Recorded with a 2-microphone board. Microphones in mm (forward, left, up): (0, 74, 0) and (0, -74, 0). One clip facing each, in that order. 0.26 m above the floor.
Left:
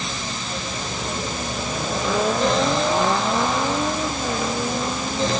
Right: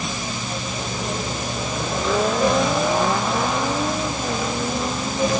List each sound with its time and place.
Only background noise.